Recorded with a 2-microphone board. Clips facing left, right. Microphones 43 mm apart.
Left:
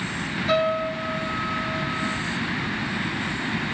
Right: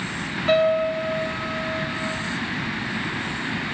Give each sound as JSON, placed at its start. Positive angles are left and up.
{"t": 0.5, "sound": "a piano", "side_deg": -50, "distance_m": 2.5}